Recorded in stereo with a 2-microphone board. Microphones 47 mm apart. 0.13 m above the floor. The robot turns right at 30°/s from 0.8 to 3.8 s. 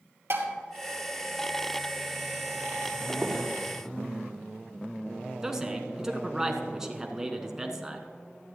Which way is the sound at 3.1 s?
Centre (ahead or behind).